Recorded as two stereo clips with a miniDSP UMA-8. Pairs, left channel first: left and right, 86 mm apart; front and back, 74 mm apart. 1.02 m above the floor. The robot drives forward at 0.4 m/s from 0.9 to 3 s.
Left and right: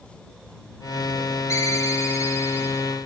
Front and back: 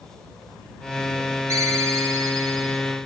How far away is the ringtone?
About 2 m.